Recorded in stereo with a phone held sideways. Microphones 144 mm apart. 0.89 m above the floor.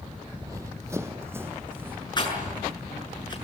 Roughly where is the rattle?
Left.